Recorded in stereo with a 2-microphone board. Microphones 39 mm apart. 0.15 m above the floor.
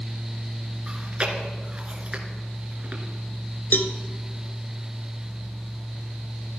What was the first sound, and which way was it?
Chewing, 30° right (ahead or behind).